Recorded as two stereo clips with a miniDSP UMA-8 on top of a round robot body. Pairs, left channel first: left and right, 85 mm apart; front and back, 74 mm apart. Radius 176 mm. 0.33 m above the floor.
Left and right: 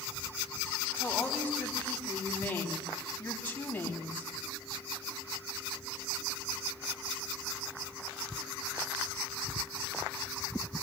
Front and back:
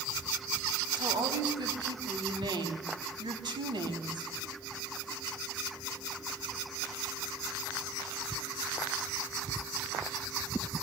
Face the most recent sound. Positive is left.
turn(degrees=165)